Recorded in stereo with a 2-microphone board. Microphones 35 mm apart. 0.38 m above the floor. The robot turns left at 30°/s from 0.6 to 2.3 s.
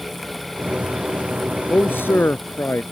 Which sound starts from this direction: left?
A man speaking, at 1.7 s.